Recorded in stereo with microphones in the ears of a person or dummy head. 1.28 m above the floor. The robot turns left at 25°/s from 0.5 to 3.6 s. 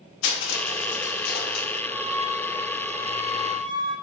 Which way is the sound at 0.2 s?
80° left.